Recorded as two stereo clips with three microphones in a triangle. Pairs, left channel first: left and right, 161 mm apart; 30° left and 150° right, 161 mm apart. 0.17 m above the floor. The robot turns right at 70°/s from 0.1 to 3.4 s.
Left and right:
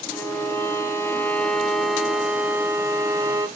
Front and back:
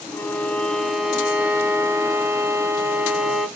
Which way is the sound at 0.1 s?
60° left.